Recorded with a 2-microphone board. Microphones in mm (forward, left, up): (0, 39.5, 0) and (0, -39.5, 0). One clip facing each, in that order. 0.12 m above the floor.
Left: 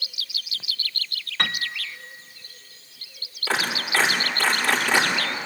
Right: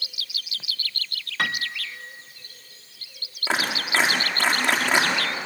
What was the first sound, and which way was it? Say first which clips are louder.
A piano: right 1 dB; 5° right (ahead or behind).